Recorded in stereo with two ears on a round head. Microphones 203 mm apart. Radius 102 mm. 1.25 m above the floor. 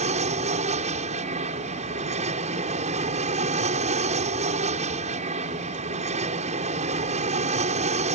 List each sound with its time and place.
0.0 s an aircraft: 30° right (ahead or behind)